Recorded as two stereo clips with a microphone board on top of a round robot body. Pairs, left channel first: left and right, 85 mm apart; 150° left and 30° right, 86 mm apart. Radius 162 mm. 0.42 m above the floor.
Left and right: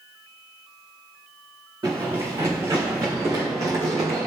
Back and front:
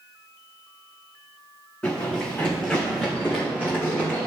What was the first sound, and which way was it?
Running footsteps, 140° right.